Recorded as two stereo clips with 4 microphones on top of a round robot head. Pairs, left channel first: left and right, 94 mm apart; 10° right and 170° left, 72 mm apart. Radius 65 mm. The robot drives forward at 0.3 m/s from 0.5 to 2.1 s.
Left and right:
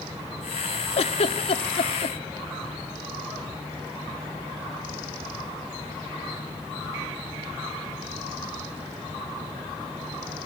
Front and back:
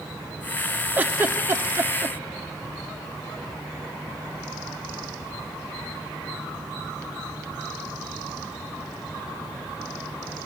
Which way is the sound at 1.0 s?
105° left.